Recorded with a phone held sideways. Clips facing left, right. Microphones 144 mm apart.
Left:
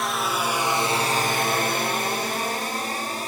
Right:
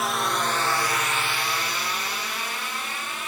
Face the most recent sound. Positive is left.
turn(degrees=40)  # may be behind; listen again after turning